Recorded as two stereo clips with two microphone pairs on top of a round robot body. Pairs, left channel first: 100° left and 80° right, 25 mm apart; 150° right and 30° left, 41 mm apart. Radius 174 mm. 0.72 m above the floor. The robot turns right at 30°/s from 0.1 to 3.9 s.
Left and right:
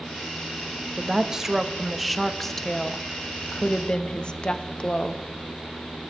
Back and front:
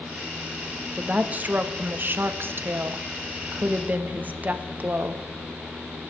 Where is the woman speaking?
20° right, 1.2 m; by 5.2 s 65° left, 1.2 m.